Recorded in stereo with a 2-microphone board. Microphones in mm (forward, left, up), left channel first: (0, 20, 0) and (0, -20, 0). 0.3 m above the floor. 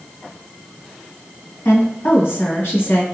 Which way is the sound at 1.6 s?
65° left (ahead or behind).